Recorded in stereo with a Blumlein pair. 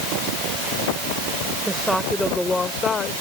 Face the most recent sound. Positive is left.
turn(degrees=20)